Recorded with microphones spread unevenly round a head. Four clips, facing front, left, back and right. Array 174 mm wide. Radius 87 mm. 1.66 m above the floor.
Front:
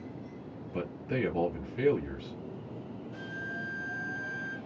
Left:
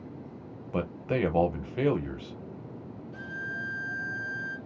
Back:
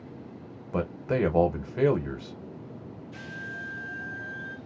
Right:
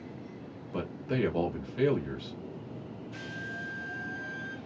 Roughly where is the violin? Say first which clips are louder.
Left 4 dB, even; ahead left.